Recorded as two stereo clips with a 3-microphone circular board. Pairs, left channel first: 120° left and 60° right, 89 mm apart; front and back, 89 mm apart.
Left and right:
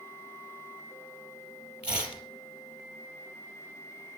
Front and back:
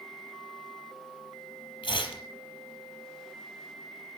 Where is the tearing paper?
15° left, 4.5 m.